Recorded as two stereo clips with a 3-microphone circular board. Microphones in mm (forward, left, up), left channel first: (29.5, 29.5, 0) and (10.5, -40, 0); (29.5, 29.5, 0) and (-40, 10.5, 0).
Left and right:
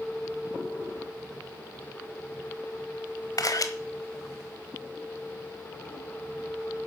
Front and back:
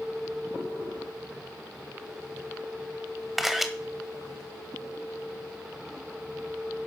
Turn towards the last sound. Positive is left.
turn(degrees=105)